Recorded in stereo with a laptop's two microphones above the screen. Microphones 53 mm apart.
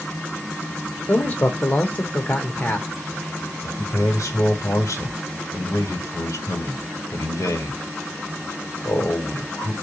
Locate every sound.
1.1 s a man speaking: 40° left (ahead or behind), 0.8 m
3.6 s a man speaking: 80° left, 1.6 m